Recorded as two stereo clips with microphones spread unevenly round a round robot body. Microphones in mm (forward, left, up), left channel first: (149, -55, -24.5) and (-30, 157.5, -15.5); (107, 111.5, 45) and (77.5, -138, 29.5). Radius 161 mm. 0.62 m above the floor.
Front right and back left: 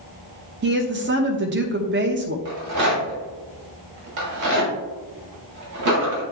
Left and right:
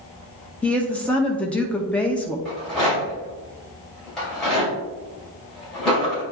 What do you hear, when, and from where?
0.6 s a woman speaking: 170° left, 0.6 m
2.5 s a rattle: 170° left, 2.5 m